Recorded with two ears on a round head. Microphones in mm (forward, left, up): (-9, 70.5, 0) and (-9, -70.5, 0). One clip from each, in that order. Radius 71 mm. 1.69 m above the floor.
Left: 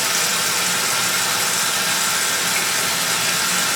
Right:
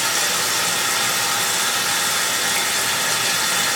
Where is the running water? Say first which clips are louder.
Even; 70° left (ahead or behind), 8 m.